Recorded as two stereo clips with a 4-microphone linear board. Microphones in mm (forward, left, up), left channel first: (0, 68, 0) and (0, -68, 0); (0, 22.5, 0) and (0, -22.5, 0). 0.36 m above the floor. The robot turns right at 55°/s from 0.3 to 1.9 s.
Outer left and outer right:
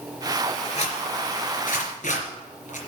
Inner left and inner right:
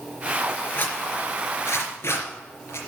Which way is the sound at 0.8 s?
50° left (ahead or behind).